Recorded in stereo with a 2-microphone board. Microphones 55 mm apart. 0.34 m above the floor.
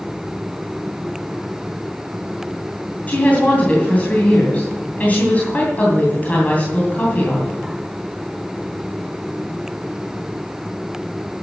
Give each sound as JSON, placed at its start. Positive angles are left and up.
{"t": 3.1, "sound": "a woman speaking", "side_deg": 30, "distance_m": 3.0}